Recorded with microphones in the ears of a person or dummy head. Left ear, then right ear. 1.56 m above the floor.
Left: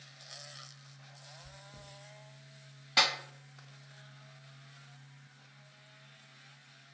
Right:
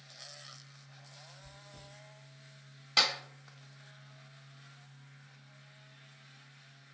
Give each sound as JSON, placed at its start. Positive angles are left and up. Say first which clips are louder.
{"t": 1.4, "sound": "chewing", "louder": "left 1 dB", "side_deg": 15, "distance_m": 0.6}
{"t": 3.0, "sound": "a clap", "louder": "even", "side_deg": -15, "distance_m": 1.5}